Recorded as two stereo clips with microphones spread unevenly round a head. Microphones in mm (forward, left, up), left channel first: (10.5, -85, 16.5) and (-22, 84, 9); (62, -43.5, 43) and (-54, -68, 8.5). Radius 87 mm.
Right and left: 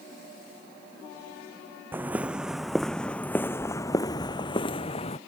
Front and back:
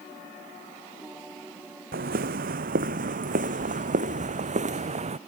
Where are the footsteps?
Straight behind; by 5.2 s 135° right.